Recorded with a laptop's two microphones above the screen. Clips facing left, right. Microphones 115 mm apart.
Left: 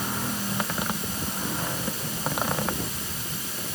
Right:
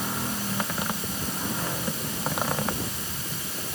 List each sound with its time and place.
Only background noise.